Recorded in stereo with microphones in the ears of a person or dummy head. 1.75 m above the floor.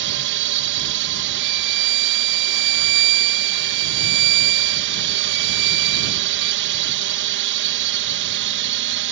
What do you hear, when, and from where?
0.0 s a drone: 60° right (ahead or behind)
1.4 s a violin: 70° right (ahead or behind)